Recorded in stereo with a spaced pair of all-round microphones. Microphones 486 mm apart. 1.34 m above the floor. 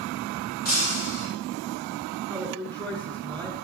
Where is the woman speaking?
10° right (ahead or behind), 6 m.